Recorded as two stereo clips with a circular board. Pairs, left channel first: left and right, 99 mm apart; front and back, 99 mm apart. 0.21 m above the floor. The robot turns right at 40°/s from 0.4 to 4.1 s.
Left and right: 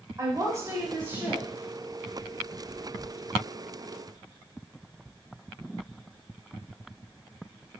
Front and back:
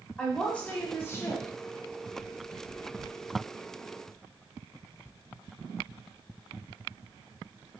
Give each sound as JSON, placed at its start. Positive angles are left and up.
{"t": 0.2, "sound": "a woman speaking", "azimuth_deg": -70, "distance_m": 1.1}